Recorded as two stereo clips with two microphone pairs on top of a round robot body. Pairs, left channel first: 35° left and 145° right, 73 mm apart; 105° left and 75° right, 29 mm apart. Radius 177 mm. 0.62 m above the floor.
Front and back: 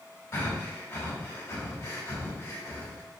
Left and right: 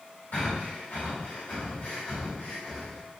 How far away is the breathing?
About 5.5 m.